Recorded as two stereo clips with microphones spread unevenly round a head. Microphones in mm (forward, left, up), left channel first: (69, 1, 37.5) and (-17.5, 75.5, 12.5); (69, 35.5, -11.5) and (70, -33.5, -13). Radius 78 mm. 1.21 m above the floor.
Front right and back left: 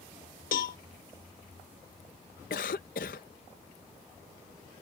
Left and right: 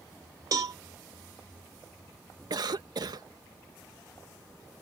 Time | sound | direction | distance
0.5 | a cowbell | 65° right | ?
2.5 | a cough | 65° right | ?